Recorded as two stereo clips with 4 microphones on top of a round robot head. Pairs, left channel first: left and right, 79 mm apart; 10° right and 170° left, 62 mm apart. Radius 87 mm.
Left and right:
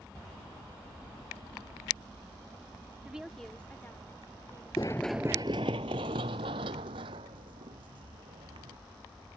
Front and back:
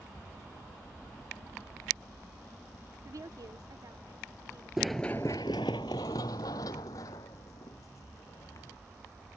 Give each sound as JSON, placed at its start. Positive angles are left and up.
{"t": 3.0, "sound": "a woman speaking", "azimuth_deg": -165}
{"t": 4.8, "sound": "running footsteps", "azimuth_deg": 90}